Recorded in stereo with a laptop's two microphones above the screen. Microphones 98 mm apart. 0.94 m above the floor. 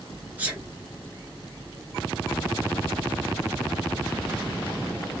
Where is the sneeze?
15° right (ahead or behind), 1.0 m.